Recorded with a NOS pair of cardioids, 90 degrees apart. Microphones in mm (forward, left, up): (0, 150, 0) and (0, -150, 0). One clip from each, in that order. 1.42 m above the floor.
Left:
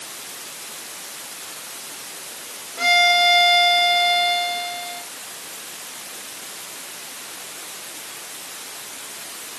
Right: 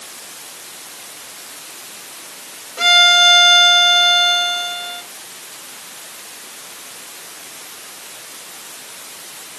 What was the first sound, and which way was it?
A violin, 50° right.